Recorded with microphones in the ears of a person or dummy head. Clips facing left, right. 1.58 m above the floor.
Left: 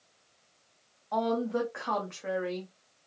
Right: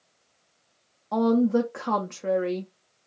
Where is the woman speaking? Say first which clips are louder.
Right 8 dB; 45° right (ahead or behind), 0.5 m.